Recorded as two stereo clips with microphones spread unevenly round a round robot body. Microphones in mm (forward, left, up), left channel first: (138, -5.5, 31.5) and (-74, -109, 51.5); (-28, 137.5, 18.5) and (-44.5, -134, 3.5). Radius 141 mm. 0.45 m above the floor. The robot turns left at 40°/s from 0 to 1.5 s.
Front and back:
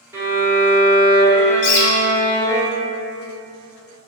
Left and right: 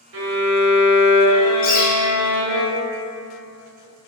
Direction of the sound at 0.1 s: 70° right.